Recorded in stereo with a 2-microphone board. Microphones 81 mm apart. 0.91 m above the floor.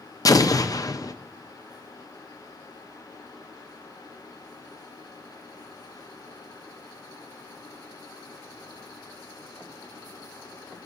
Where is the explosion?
45° left (ahead or behind), 0.5 m.